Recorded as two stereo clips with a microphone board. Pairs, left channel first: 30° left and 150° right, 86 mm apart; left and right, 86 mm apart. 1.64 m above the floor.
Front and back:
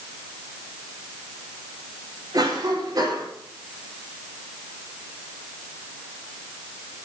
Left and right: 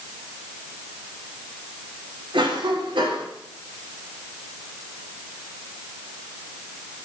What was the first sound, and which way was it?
A cough, 105° right.